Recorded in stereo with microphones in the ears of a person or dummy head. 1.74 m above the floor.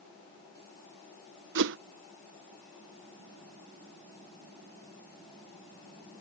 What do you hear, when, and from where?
1.6 s a whoosh: 65° right (ahead or behind)